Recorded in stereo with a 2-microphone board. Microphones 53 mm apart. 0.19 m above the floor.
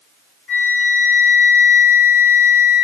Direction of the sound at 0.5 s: 25° left (ahead or behind).